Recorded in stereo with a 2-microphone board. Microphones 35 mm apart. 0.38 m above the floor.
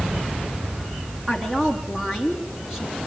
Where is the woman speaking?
10° right (ahead or behind), 4 m.